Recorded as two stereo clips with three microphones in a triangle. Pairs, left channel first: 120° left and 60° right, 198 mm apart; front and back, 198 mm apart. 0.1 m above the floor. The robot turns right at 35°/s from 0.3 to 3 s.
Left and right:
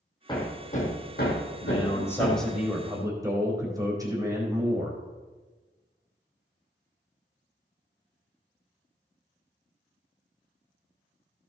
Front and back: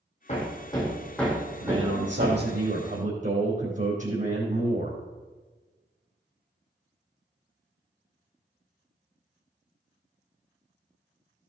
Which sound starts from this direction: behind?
A man speaking, at 1.6 s.